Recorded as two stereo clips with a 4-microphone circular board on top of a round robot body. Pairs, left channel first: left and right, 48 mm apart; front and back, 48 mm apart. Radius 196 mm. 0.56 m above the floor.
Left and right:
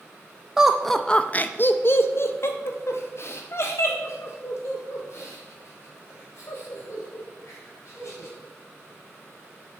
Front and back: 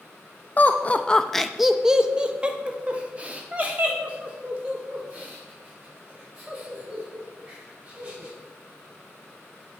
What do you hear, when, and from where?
0.6 s laughter: 20° right, 0.6 m; by 8.3 s 125° left, 3.5 m